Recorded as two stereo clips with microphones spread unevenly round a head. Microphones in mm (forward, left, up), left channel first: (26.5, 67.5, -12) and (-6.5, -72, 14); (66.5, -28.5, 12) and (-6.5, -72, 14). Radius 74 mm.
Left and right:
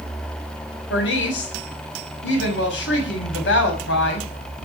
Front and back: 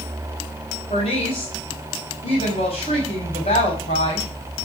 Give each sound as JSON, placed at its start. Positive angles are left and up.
{"t": 0.9, "sound": "a woman speaking", "azimuth_deg": 80, "distance_m": 6.0}